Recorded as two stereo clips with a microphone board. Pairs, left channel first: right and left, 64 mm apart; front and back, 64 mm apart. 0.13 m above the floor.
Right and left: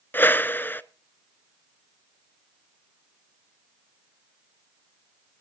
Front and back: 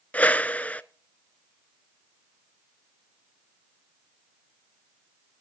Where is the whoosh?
55° right, 0.6 m.